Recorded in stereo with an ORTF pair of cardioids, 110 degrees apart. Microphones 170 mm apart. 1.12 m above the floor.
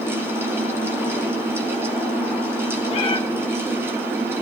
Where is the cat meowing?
40° left, 1.7 m.